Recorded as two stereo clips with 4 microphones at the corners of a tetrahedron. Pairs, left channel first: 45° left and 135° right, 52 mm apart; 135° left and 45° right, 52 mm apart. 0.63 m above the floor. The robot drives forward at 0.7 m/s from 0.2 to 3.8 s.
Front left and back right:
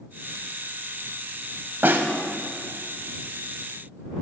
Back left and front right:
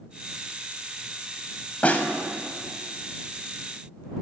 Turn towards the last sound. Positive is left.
turn(degrees=-175)